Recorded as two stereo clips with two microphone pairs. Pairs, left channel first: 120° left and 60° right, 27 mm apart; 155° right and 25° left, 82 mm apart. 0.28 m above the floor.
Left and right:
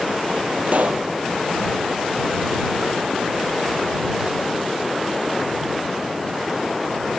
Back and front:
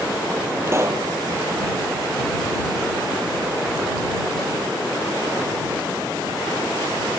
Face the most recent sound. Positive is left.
turn(degrees=-30)